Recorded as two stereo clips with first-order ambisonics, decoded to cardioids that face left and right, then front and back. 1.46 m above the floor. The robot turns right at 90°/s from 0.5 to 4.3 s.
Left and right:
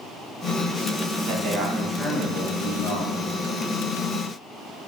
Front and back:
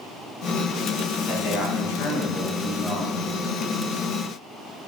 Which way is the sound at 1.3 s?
60° right.